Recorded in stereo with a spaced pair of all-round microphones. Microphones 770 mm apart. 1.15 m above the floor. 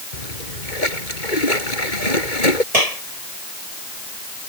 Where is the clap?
50° right (ahead or behind).